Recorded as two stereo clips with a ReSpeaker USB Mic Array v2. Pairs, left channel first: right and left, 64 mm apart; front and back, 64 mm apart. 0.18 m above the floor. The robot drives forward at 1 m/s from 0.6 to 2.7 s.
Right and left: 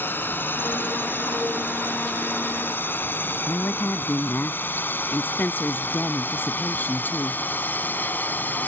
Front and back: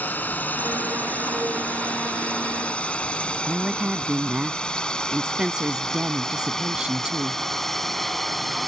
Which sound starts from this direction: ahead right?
A drone, at 0.0 s.